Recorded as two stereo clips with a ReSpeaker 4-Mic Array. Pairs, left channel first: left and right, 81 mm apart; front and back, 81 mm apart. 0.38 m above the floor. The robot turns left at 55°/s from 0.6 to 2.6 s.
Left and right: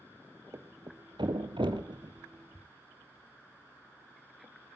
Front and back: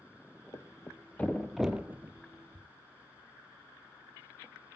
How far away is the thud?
About 1.5 m.